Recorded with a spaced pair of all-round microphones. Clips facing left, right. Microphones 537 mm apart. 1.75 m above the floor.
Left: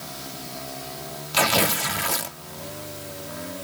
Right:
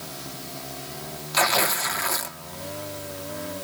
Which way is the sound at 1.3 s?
50° left (ahead or behind).